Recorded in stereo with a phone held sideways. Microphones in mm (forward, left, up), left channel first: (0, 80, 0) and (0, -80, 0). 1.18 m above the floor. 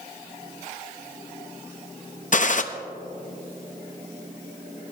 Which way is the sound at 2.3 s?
55° left (ahead or behind).